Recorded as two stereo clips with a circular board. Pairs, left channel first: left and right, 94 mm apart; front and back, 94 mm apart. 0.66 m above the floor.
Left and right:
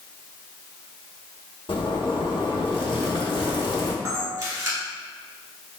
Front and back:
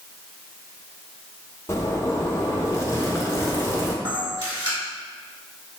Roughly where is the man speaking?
I don't hear a man speaking.